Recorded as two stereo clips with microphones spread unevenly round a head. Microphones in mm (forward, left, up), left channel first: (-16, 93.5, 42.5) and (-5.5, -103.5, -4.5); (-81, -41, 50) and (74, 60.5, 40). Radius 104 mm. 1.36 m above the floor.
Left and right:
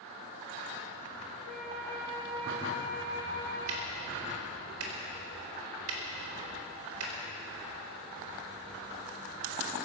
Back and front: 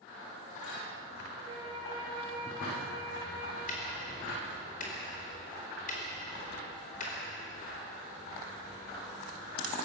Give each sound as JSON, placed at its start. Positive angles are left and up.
{"t": 1.4, "sound": "a flute", "azimuth_deg": -35, "distance_m": 6.5}
{"t": 3.7, "sound": "ticking", "azimuth_deg": -95, "distance_m": 4.0}